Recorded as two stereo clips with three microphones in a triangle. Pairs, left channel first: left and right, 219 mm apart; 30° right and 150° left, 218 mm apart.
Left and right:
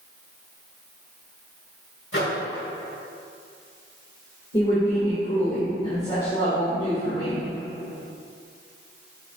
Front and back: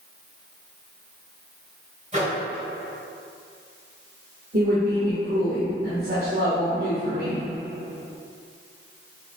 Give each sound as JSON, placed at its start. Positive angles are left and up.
{"t": 2.1, "sound": "a microwave", "azimuth_deg": 95, "distance_m": 2.5}
{"t": 4.5, "sound": "a woman speaking", "azimuth_deg": 150, "distance_m": 2.5}